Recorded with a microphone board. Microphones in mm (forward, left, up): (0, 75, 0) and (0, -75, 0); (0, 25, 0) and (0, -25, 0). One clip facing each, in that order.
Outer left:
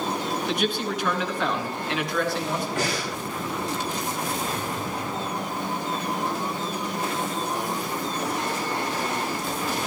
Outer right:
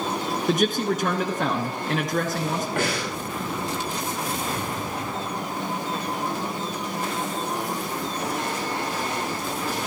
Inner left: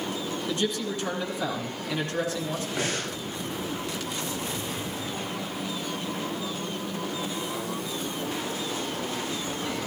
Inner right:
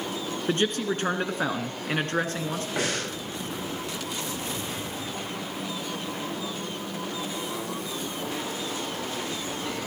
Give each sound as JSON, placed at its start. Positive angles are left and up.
{"t": 0.5, "sound": "a man speaking", "side_deg": -45, "distance_m": 1.6}
{"t": 2.8, "sound": "breathing", "side_deg": -55, "distance_m": 9.0}